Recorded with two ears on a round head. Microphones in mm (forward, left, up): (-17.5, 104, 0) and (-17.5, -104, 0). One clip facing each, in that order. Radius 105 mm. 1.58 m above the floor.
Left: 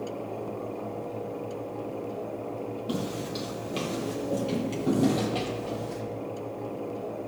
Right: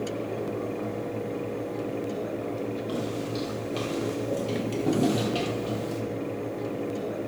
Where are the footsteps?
30° left (ahead or behind), 2 m; by 6.0 s 25° right (ahead or behind), 2.5 m.